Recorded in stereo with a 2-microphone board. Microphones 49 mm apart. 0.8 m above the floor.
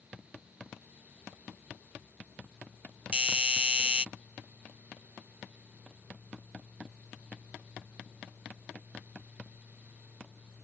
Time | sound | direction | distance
3.1 | a doorbell | 25° right (ahead or behind) | ?